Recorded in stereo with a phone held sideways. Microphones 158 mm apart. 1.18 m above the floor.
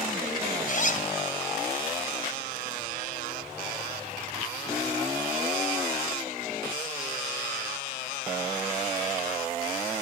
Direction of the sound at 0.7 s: 60° left (ahead or behind).